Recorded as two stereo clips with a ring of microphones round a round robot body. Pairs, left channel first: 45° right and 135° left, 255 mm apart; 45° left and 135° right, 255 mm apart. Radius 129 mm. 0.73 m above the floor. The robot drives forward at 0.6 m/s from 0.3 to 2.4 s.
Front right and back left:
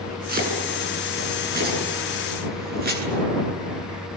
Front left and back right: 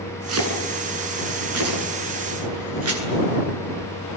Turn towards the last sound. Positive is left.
turn(degrees=-170)